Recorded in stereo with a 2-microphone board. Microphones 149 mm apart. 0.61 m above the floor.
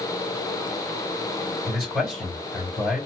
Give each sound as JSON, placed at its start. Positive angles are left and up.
{"t": 1.7, "sound": "a man speaking", "side_deg": 0, "distance_m": 3.5}